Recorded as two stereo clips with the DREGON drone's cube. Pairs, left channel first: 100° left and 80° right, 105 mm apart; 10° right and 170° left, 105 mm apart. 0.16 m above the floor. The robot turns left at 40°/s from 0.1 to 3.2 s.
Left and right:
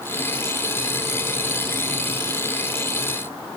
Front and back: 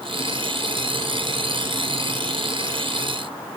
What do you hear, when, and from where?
Only background noise.